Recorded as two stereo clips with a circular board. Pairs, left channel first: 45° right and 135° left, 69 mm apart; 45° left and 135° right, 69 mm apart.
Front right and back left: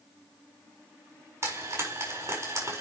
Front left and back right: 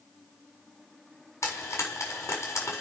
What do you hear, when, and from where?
1.4 s frying: 95° left, 6 m